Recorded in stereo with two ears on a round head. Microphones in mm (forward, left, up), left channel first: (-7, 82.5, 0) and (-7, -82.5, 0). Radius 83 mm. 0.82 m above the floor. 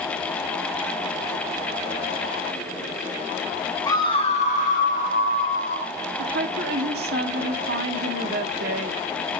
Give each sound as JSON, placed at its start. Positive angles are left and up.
{"t": 3.9, "sound": "a scream", "side_deg": 15, "distance_m": 1.0}
{"t": 6.2, "sound": "a woman speaking", "side_deg": -55, "distance_m": 1.8}